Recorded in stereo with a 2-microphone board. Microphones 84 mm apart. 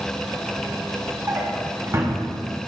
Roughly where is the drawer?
Right.